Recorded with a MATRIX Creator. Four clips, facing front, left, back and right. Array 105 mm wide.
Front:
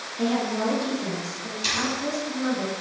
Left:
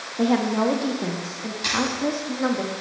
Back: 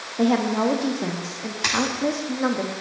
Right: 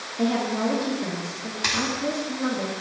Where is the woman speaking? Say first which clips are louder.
Left 3 dB, back 5 dB; 145° left, 0.8 m.